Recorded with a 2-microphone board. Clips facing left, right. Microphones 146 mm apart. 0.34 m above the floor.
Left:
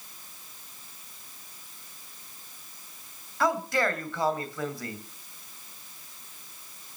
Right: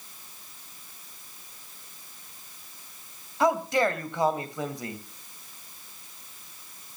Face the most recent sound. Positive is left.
turn(degrees=-20)  # may be behind; listen again after turning